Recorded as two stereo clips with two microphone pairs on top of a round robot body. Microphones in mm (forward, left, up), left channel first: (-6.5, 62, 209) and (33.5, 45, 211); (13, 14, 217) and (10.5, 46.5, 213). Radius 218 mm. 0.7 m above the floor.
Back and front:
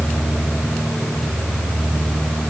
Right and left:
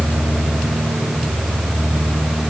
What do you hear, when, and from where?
Only background noise.